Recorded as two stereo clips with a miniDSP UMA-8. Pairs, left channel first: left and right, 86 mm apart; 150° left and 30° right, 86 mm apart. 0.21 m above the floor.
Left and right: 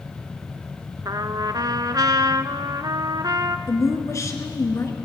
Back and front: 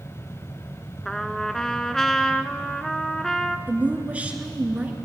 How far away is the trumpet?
About 0.8 m.